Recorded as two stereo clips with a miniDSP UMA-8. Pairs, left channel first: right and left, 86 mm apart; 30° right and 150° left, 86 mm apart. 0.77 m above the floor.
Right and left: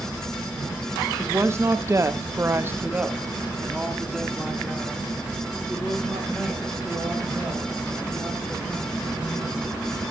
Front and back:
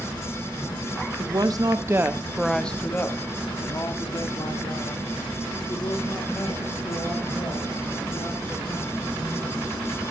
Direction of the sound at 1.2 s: 145° left.